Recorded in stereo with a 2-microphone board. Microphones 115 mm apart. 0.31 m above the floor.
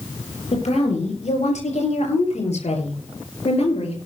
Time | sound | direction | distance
0.5 | a woman speaking | 75° left (ahead or behind) | 7 m